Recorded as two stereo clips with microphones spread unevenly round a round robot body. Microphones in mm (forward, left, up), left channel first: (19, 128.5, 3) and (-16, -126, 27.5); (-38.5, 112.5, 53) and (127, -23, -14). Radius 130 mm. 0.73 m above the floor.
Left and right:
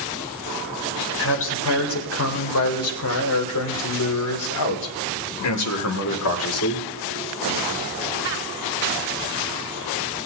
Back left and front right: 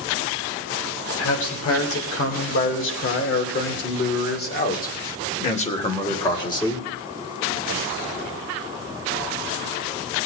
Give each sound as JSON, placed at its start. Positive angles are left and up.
{"t": 1.2, "sound": "a man speaking", "azimuth_deg": 120, "distance_m": 3.5}